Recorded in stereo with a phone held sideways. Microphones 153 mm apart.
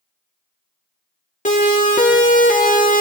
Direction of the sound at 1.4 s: 55° left (ahead or behind).